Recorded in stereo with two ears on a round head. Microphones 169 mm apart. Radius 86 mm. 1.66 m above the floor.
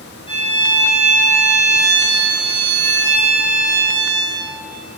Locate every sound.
0.3 s a violin: 30° left (ahead or behind), 5.5 m